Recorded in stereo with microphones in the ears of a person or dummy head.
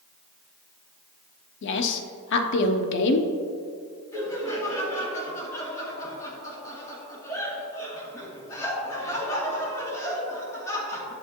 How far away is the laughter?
About 2.5 m.